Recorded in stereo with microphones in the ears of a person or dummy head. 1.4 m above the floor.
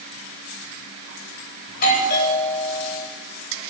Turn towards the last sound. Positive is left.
turn(degrees=55)  # may be behind; listen again after turning